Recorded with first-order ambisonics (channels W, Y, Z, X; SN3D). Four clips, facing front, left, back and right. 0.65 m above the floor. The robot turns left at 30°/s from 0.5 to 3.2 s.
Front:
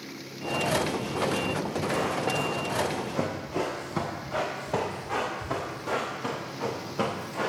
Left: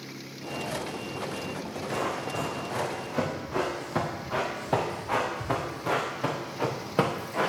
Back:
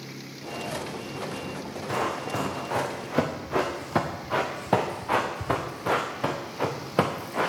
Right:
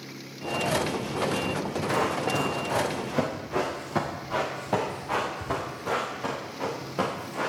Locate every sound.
1.9 s running footsteps: 125° right, 5.5 m; by 7.5 s 150° left, 4 m